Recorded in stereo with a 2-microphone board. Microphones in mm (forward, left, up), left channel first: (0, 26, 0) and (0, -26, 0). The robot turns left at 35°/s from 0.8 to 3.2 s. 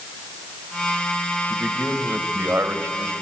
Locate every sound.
1.5 s a man speaking: 10° right, 2.5 m; by 3.1 s 70° right, 2.5 m